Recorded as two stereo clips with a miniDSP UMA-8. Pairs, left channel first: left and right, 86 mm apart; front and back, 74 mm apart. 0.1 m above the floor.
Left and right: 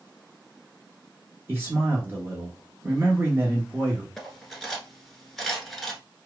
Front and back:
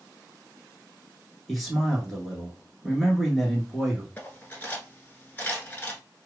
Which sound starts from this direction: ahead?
Cutlery clinking, at 4.2 s.